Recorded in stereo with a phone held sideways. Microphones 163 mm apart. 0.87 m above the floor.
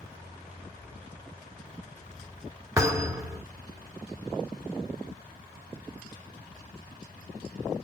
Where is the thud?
20° right (ahead or behind), 1.6 m.